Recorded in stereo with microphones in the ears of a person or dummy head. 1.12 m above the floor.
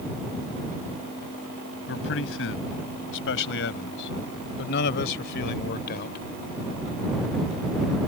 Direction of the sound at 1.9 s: 75° left (ahead or behind).